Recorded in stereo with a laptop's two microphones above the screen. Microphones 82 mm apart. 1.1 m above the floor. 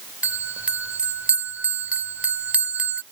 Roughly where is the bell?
Centre.